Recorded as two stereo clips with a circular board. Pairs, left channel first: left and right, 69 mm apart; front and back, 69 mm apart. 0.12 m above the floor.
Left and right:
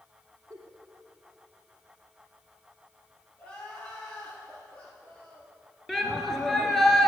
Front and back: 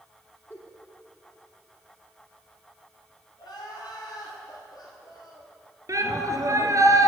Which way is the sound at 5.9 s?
175° left.